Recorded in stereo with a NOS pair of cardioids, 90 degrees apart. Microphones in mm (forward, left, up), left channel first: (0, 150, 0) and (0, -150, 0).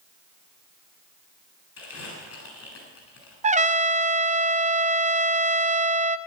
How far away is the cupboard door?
I don't hear a cupboard door.